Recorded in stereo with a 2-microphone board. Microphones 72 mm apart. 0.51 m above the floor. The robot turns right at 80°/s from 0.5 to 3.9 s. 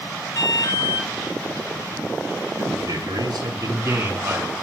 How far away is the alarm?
About 2.5 m.